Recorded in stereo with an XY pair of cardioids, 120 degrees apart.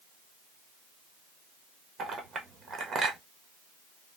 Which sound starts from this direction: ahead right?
A clink, at 2.0 s.